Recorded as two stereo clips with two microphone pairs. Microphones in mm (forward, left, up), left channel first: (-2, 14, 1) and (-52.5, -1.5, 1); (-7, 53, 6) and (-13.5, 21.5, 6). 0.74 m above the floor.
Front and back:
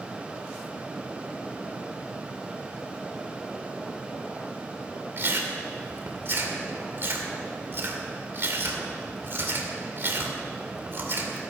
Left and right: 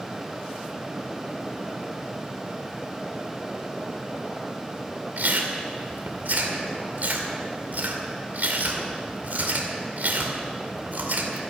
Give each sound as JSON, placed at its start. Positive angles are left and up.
{"t": 5.2, "sound": "chewing", "azimuth_deg": -125, "distance_m": 2.0}